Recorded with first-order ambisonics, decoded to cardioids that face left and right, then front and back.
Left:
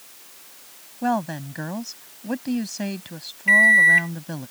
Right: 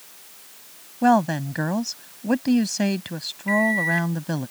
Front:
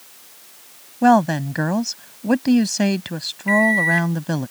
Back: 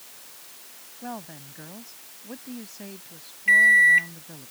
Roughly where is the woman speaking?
Ahead.